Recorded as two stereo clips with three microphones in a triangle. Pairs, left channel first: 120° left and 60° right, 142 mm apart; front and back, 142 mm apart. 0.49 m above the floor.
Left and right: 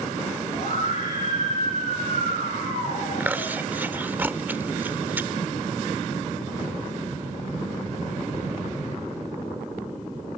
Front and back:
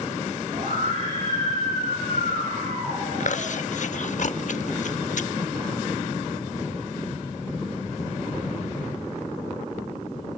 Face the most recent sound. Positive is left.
turn(degrees=15)